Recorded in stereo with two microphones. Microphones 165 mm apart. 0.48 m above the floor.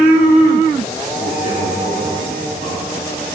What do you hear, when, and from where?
1.2 s a man speaking: 50° left (ahead or behind), 6.5 m; by 3.0 s 45° left (ahead or behind), 5.5 m